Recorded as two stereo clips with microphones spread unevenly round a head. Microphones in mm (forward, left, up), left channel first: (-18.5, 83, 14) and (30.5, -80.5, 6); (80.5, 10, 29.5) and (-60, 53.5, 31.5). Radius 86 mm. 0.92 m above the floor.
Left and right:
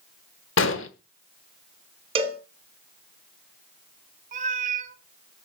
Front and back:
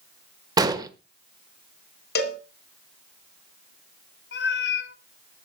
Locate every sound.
0.6 s an explosion: 100° left, 1.3 m
2.1 s a cowbell: 15° right, 3 m
4.3 s a cat meowing: 25° right, 1.5 m